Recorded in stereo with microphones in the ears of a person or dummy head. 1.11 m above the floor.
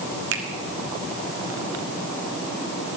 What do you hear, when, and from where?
0.3 s a finger snap: 80° right, 1.2 m